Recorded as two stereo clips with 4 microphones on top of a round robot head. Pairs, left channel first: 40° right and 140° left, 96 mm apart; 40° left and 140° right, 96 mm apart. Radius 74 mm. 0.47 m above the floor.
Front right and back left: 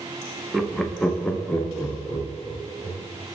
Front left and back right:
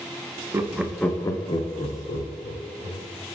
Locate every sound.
0.5 s laughter: 125° right, 0.7 m; by 3.0 s 40° left, 1.9 m